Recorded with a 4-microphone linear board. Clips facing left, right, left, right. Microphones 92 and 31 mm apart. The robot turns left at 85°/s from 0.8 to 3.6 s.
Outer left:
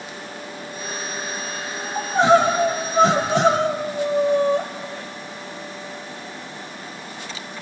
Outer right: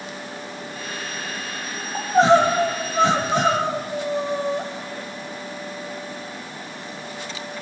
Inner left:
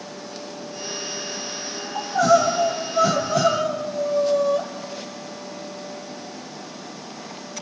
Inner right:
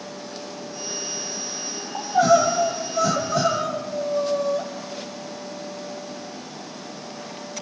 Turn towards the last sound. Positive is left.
turn(degrees=100)